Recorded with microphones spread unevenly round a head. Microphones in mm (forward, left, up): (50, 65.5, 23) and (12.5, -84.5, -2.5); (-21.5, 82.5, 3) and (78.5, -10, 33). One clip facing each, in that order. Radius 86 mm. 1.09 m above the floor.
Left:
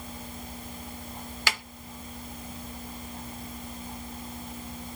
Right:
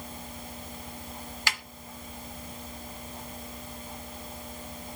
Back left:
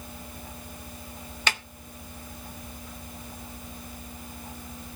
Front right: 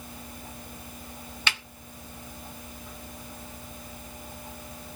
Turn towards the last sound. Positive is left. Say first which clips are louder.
# left 3 dB, back left 4 dB
turn(degrees=85)